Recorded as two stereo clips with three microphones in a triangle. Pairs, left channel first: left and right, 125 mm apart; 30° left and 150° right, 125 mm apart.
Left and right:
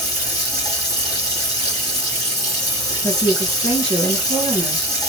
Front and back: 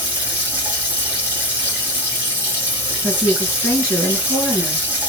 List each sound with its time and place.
0.0 s running water: 140° left, 1.7 m
3.0 s a woman speaking: 110° left, 2.0 m